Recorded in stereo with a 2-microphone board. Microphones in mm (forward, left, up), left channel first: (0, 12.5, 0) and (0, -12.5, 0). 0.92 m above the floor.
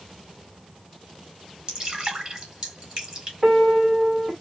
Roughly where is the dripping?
Right.